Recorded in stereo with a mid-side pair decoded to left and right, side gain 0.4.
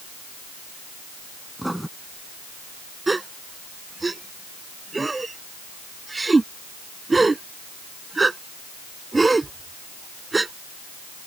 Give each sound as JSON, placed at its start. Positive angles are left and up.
{"t": 1.6, "sound": "writing", "azimuth_deg": -5}
{"t": 3.1, "sound": "a gasp", "azimuth_deg": -25}